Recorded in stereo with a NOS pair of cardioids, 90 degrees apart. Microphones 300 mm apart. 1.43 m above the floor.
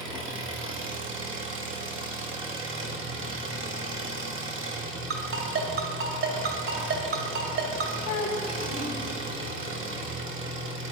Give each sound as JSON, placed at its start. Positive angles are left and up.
{"t": 0.0, "sound": "an engine running", "azimuth_deg": -45, "distance_m": 1.7}
{"t": 5.1, "sound": "a ringtone", "azimuth_deg": -45, "distance_m": 2.5}
{"t": 8.0, "sound": "a child speaking", "azimuth_deg": 65, "distance_m": 3.5}